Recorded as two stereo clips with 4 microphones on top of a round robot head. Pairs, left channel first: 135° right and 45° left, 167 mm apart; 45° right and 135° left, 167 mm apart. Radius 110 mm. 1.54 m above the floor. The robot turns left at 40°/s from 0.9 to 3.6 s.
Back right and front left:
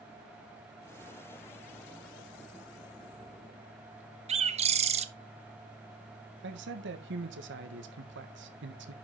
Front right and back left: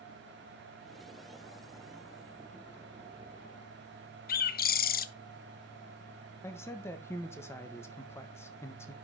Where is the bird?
10° right, 0.8 m.